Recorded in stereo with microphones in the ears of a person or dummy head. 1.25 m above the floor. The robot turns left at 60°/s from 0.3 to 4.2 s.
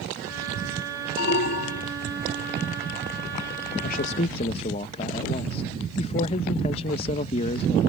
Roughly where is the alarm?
Behind left.